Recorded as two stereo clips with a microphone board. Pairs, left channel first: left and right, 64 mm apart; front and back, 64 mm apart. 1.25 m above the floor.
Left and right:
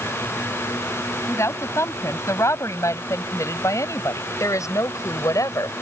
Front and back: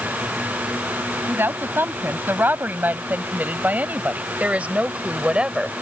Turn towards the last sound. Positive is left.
turn(degrees=105)